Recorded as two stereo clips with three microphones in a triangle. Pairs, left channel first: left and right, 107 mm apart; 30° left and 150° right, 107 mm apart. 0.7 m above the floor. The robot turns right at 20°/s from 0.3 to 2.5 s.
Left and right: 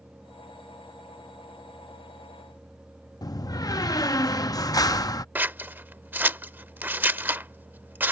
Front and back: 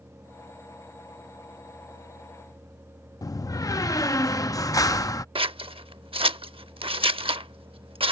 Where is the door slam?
60° left.